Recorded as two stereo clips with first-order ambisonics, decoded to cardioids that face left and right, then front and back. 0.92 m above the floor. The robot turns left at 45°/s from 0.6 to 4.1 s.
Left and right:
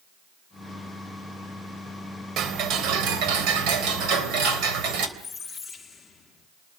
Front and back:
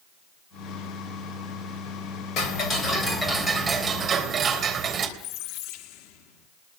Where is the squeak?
15° left, 1.1 m.